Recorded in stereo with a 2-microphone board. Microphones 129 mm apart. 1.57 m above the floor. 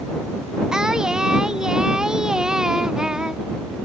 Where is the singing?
5° right (ahead or behind).